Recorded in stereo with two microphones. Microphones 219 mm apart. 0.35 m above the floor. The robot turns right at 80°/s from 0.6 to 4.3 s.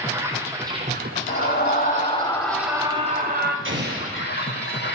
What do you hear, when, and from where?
0.0 s an insect: 170° right, 1.7 m; by 5.0 s 130° left, 1.7 m
1.3 s a scream: 75° left, 1.8 m; by 3.5 s 100° right, 1.8 m
3.6 s an explosion: 70° right, 1.9 m; by 4.2 s 20° right, 1.9 m